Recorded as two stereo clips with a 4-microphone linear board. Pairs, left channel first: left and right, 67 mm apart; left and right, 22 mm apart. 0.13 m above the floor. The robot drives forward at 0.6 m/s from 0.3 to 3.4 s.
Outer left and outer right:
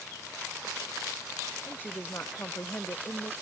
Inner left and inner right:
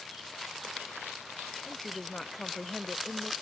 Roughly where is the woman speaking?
Left.